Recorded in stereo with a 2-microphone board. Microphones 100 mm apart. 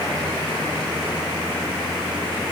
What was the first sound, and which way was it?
Only background noise.